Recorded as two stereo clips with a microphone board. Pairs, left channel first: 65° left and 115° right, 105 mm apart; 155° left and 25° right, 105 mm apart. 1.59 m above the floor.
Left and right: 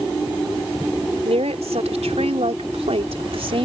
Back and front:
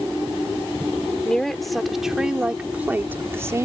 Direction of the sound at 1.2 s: 120° right.